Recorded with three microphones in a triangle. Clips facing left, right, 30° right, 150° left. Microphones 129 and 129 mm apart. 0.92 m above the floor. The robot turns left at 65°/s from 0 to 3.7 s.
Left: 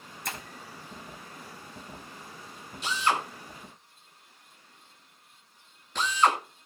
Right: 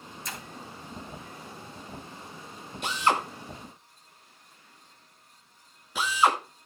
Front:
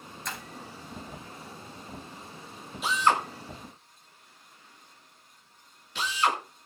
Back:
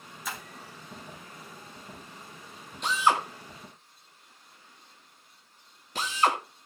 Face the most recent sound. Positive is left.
turn(degrees=-170)